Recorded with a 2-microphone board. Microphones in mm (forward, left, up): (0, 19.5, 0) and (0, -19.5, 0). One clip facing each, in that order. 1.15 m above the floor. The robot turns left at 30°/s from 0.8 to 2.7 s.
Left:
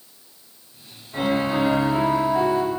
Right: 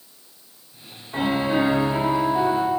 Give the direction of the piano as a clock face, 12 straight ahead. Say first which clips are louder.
Even; 5 o'clock.